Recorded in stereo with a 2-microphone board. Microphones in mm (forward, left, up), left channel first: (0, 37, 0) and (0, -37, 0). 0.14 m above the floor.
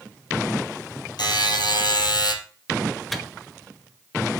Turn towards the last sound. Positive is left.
turn(degrees=0)  # may be behind; listen again after turning